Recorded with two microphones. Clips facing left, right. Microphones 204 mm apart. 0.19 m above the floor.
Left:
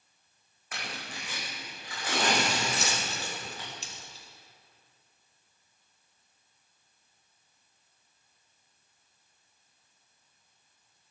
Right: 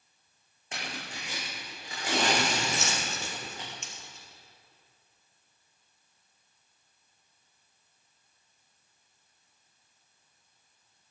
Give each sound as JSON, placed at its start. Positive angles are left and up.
{"t": 0.7, "sound": "tearing paper", "side_deg": -25, "distance_m": 6.0}
{"t": 2.7, "sound": "a dropped coin", "side_deg": 35, "distance_m": 2.5}